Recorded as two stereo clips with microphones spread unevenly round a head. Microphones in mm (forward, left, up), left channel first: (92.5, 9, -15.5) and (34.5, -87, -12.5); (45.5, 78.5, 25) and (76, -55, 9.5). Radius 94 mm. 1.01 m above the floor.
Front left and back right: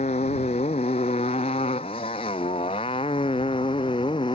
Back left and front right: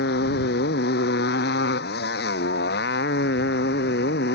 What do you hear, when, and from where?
0.0 s a motorcycle: 115° left; by 4.4 s 125° left